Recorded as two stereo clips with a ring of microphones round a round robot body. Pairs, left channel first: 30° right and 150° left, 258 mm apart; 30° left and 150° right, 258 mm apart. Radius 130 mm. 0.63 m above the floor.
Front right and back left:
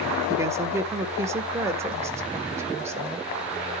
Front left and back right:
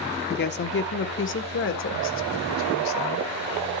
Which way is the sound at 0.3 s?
75° left.